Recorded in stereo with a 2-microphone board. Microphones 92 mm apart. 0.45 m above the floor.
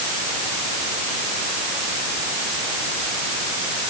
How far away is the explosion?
No explosion in this recording.